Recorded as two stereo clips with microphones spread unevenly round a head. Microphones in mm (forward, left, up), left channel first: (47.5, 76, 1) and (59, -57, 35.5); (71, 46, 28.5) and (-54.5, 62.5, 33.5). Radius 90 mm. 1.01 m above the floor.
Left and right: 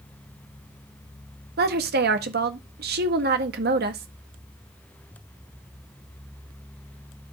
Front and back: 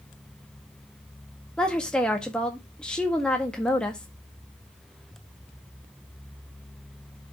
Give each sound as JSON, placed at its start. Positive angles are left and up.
{"t": 1.6, "sound": "a woman speaking", "azimuth_deg": -90, "distance_m": 1.6}